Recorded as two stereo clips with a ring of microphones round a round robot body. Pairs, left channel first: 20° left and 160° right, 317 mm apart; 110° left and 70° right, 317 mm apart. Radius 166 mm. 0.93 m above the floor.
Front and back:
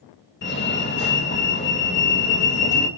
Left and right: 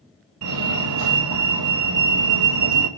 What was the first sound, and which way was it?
A fire alarm, 30° right.